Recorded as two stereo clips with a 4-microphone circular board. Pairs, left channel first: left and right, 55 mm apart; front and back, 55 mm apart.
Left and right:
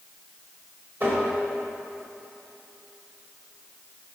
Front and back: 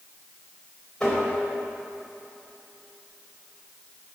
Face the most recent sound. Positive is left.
turn(degrees=-80)